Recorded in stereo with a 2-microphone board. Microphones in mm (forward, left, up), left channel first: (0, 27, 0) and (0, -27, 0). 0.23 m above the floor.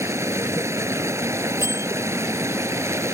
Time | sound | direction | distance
0.0 | running water | 70° right (ahead or behind) | ?
1.6 | a bell | 65° right (ahead or behind) | ?